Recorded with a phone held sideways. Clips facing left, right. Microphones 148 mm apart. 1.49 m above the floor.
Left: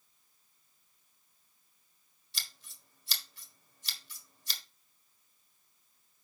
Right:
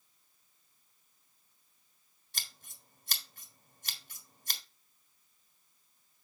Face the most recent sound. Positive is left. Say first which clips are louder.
# right 1 dB
turn(degrees=-55)  # may be behind; listen again after turning